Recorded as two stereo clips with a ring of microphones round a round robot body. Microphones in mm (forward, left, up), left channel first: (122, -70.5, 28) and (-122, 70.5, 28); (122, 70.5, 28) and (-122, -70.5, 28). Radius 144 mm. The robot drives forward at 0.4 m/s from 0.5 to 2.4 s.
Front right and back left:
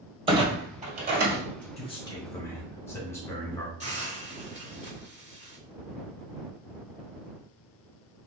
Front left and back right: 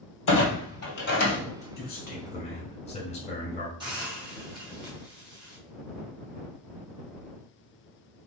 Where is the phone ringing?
I don't hear a phone ringing.